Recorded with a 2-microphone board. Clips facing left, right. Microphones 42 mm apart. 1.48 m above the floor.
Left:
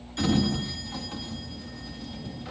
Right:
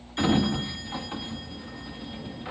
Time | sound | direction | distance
0.2 | a sliding door | 20° right (ahead or behind) | 2 m